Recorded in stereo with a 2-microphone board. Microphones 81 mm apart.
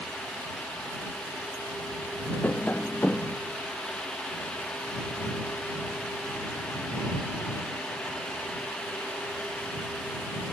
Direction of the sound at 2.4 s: 20° left (ahead or behind).